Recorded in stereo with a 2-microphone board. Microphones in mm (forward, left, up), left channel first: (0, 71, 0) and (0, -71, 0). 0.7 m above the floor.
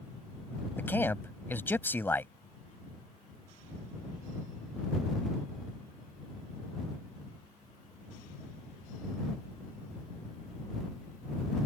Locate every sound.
0.8 s a man speaking: 15° left (ahead or behind)